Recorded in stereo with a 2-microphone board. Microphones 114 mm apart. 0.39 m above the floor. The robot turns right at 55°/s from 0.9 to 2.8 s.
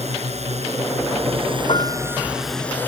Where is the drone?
85° right; by 2.9 s 15° left.